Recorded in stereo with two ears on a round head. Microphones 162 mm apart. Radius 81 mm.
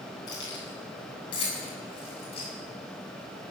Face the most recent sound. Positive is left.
turn(degrees=35)  # may be behind; listen again after turning